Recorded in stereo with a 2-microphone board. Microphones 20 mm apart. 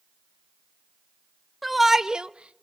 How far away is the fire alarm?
I don't hear a fire alarm.